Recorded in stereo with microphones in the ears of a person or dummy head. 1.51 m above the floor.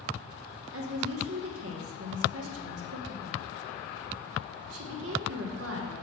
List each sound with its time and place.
0.7 s a woman speaking: 80° right, 1.6 m